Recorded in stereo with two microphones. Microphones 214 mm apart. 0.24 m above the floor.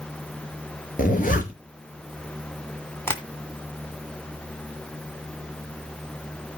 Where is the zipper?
40° left (ahead or behind), 2.0 m.